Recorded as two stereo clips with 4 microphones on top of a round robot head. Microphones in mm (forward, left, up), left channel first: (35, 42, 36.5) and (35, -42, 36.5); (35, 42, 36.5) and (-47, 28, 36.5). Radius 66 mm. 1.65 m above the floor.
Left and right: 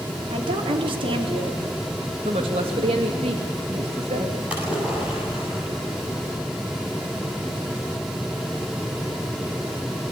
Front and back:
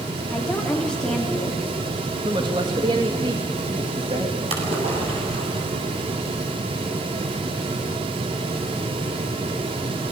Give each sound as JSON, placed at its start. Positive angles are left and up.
{"t": 0.3, "sound": "a woman speaking", "azimuth_deg": -75, "distance_m": 4.0}
{"t": 2.2, "sound": "a woman speaking", "azimuth_deg": -120, "distance_m": 2.5}
{"t": 4.5, "sound": "a splash", "azimuth_deg": -170, "distance_m": 8.5}